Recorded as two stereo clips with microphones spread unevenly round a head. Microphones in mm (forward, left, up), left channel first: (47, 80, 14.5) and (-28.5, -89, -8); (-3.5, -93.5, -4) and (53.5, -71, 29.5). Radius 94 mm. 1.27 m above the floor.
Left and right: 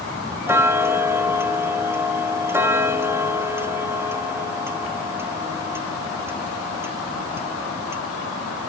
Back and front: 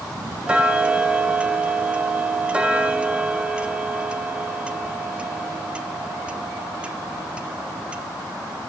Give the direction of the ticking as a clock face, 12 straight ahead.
1 o'clock.